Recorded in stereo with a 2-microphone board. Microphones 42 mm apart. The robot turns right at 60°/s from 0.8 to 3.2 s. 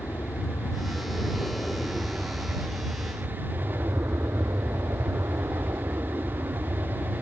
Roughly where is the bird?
No bird in this recording.